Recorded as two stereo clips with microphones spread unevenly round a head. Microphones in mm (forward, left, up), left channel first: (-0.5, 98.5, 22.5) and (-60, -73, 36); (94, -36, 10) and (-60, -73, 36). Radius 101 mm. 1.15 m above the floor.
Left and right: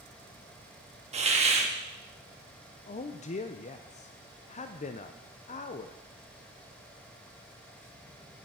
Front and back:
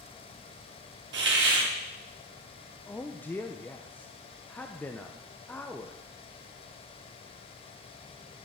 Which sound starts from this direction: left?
A man speaking, at 2.9 s.